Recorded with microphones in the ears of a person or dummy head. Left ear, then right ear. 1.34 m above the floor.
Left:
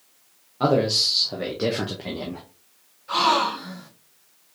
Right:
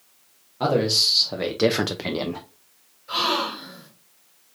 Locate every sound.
0.6 s a man speaking: 5° right (ahead or behind), 0.9 m; by 2.4 s 85° right, 0.5 m
3.1 s a gasp: 5° right (ahead or behind), 3 m